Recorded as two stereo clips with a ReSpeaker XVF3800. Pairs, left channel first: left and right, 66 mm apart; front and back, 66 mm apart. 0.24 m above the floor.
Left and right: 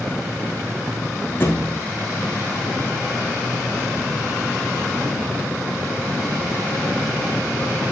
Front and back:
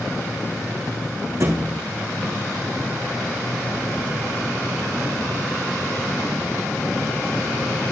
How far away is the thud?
About 3 m.